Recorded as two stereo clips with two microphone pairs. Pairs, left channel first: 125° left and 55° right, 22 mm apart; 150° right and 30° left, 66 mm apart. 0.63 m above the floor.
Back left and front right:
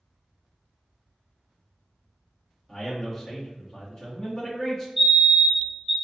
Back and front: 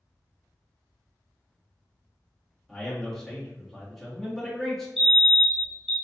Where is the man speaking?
130° left, 1.0 m.